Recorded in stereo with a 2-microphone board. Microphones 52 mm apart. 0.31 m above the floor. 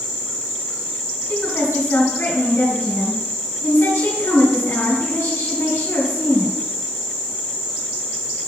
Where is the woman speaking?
65° left (ahead or behind), 2.5 m.